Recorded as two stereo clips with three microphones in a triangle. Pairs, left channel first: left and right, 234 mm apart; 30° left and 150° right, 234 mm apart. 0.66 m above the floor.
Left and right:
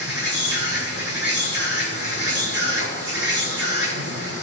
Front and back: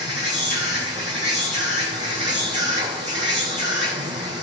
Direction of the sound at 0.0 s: 90° right.